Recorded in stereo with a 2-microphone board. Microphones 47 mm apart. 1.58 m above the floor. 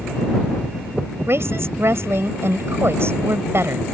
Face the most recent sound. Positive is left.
turn(degrees=-55)  # may be behind; listen again after turning